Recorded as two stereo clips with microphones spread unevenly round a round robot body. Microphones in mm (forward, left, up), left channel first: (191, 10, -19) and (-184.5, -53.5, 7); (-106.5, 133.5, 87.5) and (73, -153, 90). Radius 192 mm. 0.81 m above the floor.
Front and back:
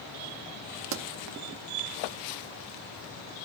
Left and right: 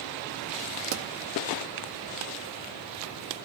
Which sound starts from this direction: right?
A pop, at 0.9 s.